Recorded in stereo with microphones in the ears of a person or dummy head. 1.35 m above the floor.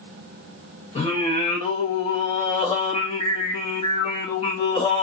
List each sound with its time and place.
0.9 s singing: 35° left (ahead or behind), 1.2 m